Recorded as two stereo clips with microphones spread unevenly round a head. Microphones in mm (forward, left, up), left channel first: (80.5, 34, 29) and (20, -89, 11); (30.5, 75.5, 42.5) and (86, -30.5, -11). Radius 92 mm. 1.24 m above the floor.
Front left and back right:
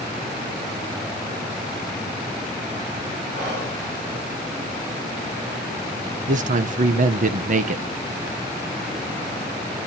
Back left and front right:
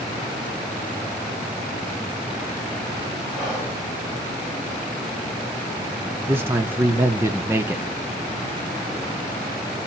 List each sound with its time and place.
3.4 s whispering: 160° right, 3.5 m
6.3 s a man speaking: 120° right, 0.8 m